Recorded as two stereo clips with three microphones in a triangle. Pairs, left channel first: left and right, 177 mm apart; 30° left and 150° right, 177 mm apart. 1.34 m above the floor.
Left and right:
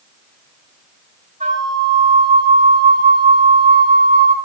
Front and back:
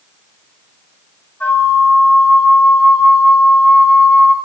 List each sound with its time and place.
1.4 s a flute: 50° right, 3 m